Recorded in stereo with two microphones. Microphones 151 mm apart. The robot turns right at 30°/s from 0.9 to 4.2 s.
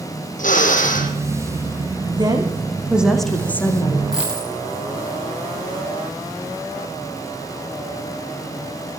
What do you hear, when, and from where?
0.4 s a drill: 60° left (ahead or behind), 6 m; by 1.1 s 65° left (ahead or behind), 6 m
2.2 s a woman speaking: 30° right, 5.5 m; by 4.0 s 25° left, 5.5 m
4.1 s a dropped coin: 5° right (ahead or behind), 7.5 m